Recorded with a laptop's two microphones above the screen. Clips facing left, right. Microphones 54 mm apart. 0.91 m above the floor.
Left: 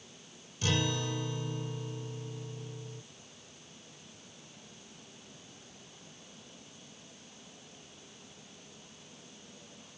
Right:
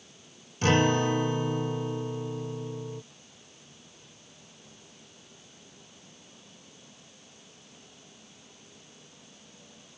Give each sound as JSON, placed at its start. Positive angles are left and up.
{"t": 0.6, "sound": "a guitar", "side_deg": -50}